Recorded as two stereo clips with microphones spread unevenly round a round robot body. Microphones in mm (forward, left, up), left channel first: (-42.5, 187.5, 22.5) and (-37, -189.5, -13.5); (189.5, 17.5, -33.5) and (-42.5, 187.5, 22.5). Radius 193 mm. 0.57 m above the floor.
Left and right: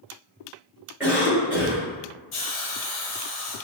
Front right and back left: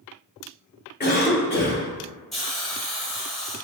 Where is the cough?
10° right, 1.3 m.